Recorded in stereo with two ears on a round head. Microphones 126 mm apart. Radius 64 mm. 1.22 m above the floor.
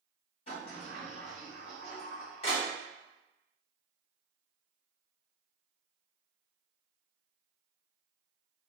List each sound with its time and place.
0.5 s a sliding door: 40° left (ahead or behind), 1.2 m